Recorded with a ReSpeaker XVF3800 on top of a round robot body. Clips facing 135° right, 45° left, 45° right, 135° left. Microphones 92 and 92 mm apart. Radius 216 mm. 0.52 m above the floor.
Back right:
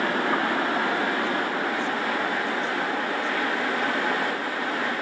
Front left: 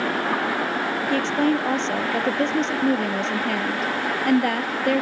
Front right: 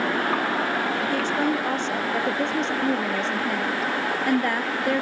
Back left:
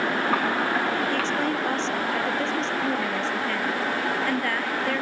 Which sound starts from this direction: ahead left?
A woman speaking, at 1.1 s.